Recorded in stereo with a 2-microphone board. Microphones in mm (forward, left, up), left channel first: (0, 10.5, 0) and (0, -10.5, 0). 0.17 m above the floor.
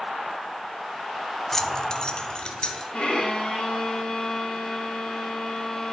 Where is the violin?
75° left (ahead or behind), 3 m.